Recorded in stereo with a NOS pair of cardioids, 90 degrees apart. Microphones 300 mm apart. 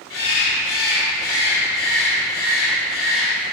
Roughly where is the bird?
Ahead left.